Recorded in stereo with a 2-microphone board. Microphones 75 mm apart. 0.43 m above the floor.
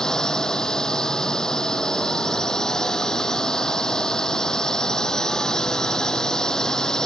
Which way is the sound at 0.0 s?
10° left (ahead or behind).